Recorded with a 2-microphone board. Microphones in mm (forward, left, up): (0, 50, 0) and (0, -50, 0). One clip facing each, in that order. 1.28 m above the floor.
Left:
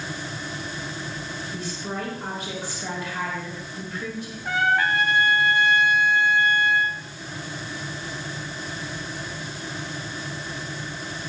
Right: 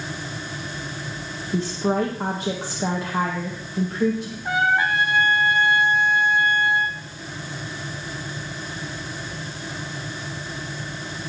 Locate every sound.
1.5 s a woman speaking: 70° right (ahead or behind), 1.6 m
4.5 s a trumpet: 20° right (ahead or behind), 1.4 m